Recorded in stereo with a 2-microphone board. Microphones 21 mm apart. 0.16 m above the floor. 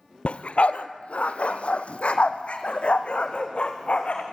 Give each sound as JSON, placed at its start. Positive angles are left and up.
{"t": 0.2, "sound": "a dog barking", "side_deg": 65, "distance_m": 0.9}